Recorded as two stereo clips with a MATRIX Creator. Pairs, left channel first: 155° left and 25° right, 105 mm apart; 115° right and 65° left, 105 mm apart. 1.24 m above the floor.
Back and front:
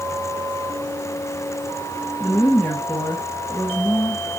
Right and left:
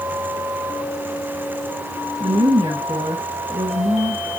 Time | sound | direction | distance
2.2 | a woman speaking | 90° left | 1.9 m